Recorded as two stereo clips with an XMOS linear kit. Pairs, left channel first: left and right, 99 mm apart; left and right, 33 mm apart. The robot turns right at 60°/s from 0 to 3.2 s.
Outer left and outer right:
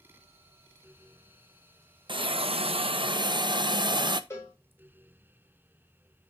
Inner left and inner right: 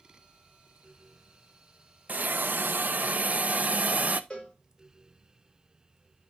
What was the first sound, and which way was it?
A hiss, 120° right.